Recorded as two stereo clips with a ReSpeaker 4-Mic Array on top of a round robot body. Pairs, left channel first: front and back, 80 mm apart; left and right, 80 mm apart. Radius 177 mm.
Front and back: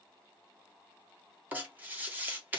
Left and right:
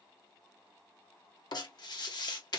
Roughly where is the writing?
Behind left.